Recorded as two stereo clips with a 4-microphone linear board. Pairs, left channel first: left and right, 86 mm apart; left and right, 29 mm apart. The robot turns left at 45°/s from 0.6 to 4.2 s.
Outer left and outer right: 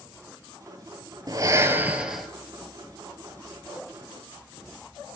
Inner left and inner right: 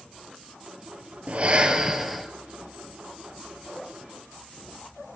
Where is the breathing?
135° right, 1.4 m; by 2.3 s straight behind, 1.4 m.